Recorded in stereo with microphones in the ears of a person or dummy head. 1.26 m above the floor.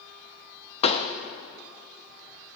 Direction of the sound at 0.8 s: 40° left (ahead or behind).